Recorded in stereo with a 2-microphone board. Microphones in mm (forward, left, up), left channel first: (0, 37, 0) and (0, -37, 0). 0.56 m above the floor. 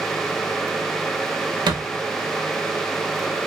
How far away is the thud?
About 0.7 m.